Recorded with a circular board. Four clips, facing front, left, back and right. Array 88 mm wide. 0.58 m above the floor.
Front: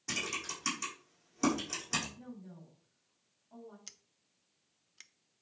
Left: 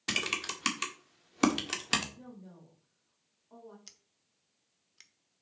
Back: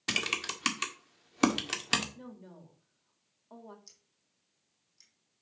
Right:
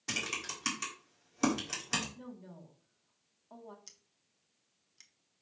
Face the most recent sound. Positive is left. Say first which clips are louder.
# left 2 dB, front 4 dB
turn(degrees=20)